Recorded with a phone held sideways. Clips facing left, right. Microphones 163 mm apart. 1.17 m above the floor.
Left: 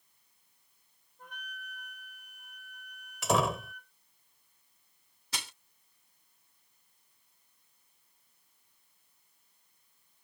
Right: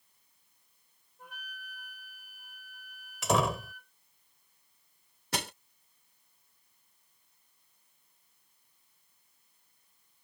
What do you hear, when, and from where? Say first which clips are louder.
1.2 s a flute: left 1 dB; 5° right (ahead or behind)
3.2 s a door slam: even; centre (ahead or behind)
5.3 s crushing: right 9 dB; 60° right (ahead or behind)